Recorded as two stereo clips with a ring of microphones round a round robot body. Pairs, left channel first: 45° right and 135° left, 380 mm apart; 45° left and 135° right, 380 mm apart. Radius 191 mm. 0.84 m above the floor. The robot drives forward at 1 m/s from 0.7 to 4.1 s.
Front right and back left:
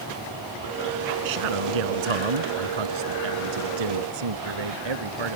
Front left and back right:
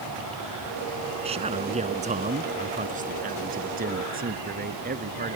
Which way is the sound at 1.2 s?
150° left.